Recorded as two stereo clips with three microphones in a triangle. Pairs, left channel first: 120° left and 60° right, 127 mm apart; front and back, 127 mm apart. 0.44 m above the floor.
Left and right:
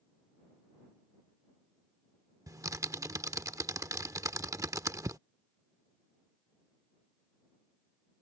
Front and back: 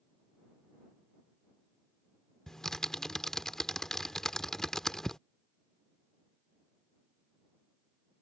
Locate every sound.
2.5 s typing on a keyboard: 80° right